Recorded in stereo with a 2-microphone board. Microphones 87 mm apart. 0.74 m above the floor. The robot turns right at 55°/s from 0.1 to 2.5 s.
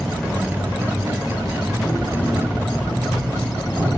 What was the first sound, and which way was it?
An insect, straight ahead.